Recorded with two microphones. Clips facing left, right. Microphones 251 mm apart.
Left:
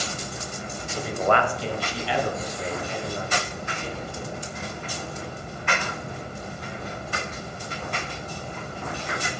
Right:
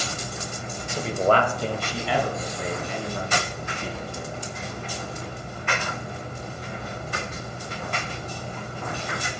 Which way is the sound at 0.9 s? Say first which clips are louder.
Right 2 dB; 15° right (ahead or behind).